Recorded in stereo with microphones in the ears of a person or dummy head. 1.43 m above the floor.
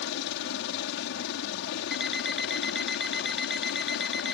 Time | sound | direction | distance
0.0 | a helicopter | 60° left (ahead or behind) | ?
1.9 | an alarm clock | centre (ahead or behind) | ?